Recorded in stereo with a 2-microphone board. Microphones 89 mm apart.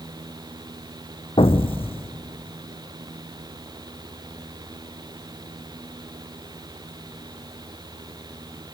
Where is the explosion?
85° left, 1.2 m.